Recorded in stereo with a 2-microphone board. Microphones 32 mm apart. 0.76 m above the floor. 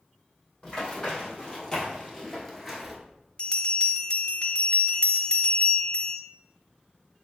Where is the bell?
35° left (ahead or behind), 0.7 m.